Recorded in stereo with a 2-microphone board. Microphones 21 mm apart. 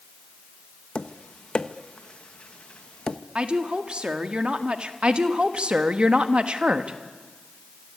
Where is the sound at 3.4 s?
55° right (ahead or behind), 1.7 m.